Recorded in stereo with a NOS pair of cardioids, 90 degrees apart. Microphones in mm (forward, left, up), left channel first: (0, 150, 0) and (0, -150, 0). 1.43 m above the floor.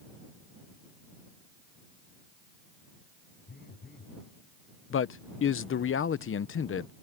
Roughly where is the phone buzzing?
Ahead left.